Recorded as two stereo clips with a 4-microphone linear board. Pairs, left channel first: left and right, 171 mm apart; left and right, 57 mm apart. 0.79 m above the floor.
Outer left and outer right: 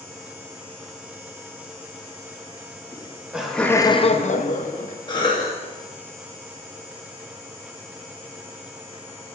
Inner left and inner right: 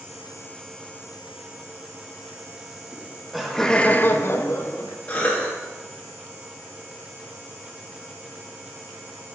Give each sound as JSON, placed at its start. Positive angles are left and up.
{"t": 2.9, "sound": "laughter", "side_deg": -15, "distance_m": 1.1}
{"t": 5.1, "sound": "a cough", "side_deg": 25, "distance_m": 1.0}